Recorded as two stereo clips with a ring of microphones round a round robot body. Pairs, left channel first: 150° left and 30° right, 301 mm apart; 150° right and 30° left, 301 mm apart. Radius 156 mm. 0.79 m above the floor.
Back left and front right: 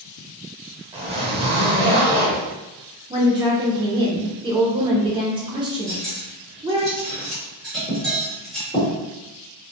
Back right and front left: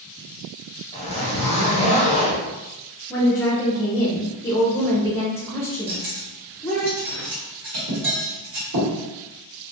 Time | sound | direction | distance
0.9 | a zipper | 90° right | 0.6 m
3.1 | a woman speaking | 80° right | 0.5 m
5.9 | cutlery clinking | 60° left | 1.4 m